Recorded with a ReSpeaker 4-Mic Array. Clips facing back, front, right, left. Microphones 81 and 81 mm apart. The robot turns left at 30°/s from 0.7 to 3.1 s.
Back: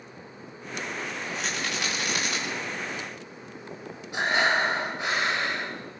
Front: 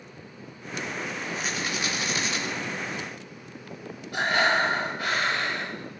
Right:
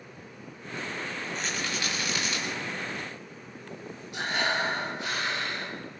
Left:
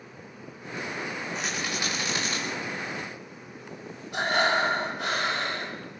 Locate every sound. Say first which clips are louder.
1.4 s a rattle: even, left 1 dB; 175° left, 8 m; by 2.4 s 145° left, 8 m
4.1 s breathing: front 1 dB, left 5 dB; 110° left, 5.5 m